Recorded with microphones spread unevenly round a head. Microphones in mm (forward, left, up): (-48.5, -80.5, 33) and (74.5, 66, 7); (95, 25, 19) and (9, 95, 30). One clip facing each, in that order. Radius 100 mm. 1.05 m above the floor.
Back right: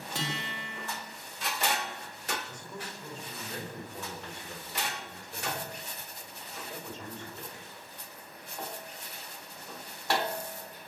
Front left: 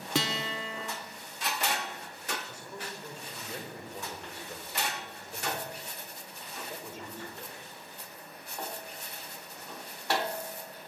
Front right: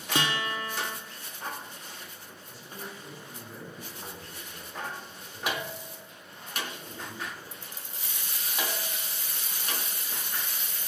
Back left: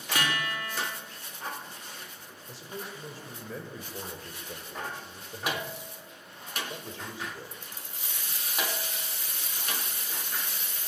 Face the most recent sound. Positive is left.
turn(degrees=130)